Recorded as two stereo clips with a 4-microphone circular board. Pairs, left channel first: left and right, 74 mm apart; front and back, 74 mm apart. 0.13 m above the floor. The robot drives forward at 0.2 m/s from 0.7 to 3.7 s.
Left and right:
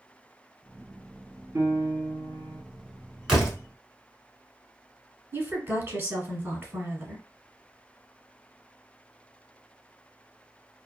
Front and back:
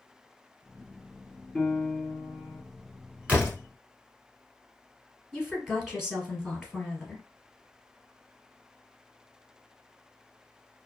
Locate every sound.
1.6 s a piano: 85° right, 1.9 m; by 2.6 s 95° right, 1.9 m
3.3 s a door slam: 155° right, 1.1 m; by 3.6 s 160° right, 1.1 m
5.3 s a woman speaking: 100° right, 1.3 m